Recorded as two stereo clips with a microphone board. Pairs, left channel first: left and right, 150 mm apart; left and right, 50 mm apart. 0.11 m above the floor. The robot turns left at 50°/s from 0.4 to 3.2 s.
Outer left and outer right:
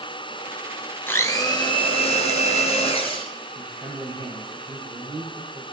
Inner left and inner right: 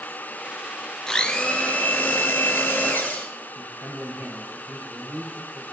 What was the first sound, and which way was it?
A blender, 160° left.